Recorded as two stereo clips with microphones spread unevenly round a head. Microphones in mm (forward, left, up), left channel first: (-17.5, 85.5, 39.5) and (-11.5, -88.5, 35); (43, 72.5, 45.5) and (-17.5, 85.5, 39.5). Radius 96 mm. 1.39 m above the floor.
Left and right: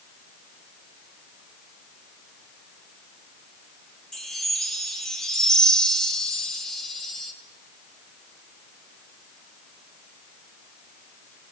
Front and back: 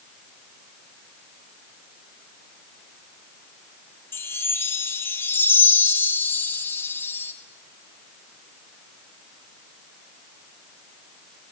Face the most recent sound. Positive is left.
turn(degrees=5)